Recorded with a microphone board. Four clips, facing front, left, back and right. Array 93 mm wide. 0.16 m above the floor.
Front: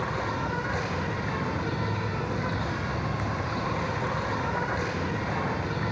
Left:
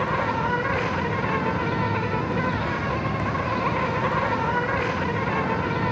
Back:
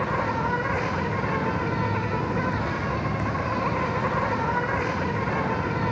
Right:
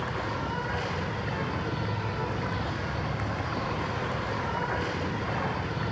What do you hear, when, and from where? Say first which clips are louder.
0.0 s an insect: left 8 dB, back 5 dB; 120° left, 4 m